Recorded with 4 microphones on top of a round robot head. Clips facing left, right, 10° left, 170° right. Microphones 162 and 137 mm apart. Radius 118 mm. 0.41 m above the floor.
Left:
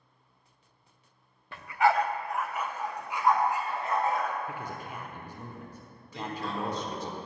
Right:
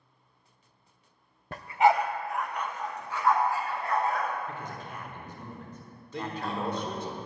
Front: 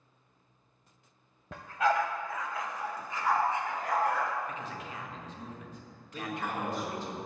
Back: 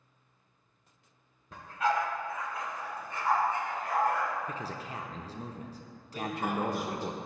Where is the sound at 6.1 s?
95° right, 1.4 m.